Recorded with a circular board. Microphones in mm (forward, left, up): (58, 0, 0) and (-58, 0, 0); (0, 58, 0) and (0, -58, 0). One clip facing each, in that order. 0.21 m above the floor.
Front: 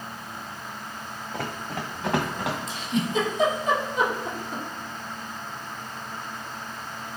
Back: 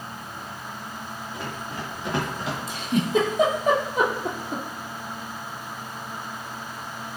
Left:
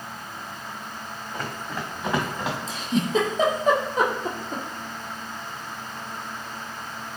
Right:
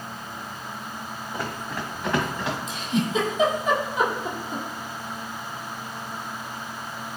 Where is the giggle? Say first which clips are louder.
Back 7 dB, left 2 dB; 145° left, 1.1 m.